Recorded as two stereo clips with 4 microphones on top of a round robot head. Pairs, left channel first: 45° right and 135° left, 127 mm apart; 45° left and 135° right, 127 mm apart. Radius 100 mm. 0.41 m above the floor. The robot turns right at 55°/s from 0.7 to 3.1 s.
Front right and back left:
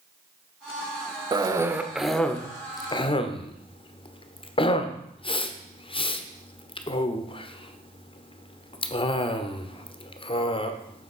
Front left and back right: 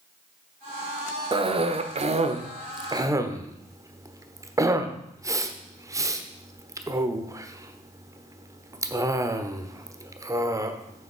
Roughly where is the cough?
Behind.